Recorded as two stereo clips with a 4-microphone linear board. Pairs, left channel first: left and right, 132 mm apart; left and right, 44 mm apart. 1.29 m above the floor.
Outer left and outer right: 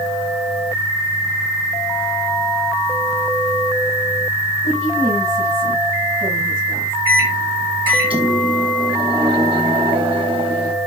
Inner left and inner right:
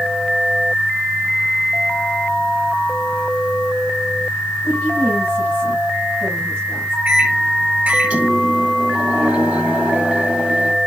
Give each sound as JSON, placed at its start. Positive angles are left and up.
{"t": 4.6, "sound": "a woman speaking", "side_deg": -50, "distance_m": 7.5}
{"t": 7.0, "sound": "a microwave", "side_deg": -40, "distance_m": 1.6}